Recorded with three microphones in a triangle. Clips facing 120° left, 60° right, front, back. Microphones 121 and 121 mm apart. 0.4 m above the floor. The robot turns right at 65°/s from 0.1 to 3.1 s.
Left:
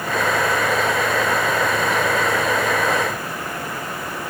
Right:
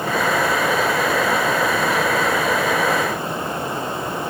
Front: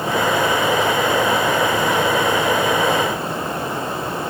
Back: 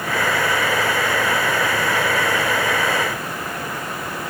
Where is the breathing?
No breathing in this recording.